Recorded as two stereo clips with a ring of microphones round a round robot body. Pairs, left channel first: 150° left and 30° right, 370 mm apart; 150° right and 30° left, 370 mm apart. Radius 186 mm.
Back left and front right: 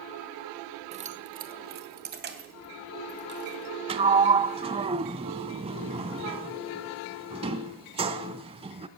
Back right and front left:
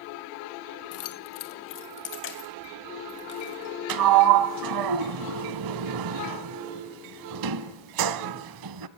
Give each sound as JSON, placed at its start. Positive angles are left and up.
{"t": 0.9, "sound": "keys jangling", "azimuth_deg": -100, "distance_m": 0.9}
{"t": 3.9, "sound": "a sliding door", "azimuth_deg": 40, "distance_m": 0.6}